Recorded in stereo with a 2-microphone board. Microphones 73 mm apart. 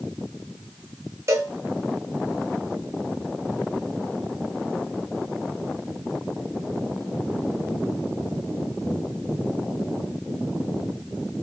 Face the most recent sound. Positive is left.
turn(degrees=-40)  # may be behind; listen again after turning